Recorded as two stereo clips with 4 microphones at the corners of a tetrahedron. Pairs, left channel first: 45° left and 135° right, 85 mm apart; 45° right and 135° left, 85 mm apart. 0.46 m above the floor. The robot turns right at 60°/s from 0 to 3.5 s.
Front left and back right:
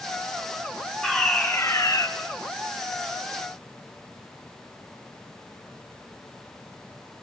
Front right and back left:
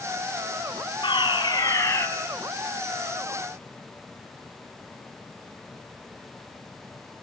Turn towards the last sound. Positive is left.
turn(degrees=110)